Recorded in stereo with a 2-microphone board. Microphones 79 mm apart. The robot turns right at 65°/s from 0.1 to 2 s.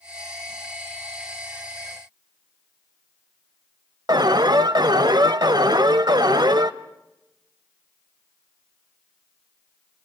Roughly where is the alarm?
Right.